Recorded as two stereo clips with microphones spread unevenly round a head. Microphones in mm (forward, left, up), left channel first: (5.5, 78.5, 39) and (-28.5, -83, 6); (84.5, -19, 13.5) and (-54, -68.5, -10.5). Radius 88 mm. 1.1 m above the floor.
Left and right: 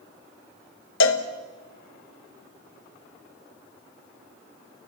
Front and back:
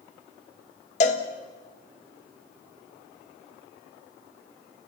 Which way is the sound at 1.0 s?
75° left.